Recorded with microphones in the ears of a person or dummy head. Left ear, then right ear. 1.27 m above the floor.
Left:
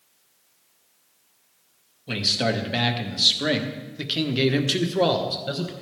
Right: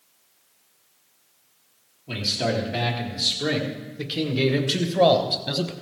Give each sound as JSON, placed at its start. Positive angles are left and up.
{"t": 2.1, "sound": "a man speaking", "side_deg": 60, "distance_m": 2.0}